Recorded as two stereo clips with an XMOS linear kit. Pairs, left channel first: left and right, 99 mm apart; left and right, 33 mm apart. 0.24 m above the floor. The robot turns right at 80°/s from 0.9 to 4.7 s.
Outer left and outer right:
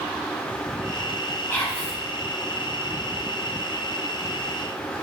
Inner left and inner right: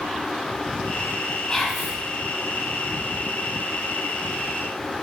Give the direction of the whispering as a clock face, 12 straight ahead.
7 o'clock.